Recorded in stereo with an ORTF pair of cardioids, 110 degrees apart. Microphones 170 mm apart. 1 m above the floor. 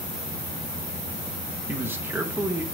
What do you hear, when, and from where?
1.7 s a man speaking: 10° right, 0.7 m